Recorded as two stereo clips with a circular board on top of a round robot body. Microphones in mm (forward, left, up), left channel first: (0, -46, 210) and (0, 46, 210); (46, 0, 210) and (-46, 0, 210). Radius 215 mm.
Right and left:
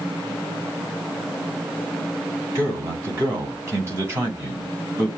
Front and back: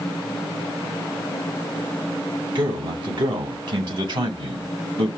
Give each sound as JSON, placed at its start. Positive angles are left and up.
{"t": 2.5, "sound": "a man speaking", "azimuth_deg": 150, "distance_m": 4.0}